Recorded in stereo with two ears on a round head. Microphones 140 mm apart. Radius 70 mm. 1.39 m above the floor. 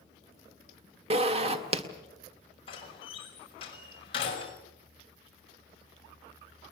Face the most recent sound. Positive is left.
turn(degrees=35)  # may be behind; listen again after turning